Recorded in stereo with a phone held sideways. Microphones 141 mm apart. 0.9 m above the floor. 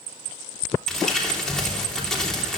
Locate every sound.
0.9 s crumpling: 5° left (ahead or behind), 3 m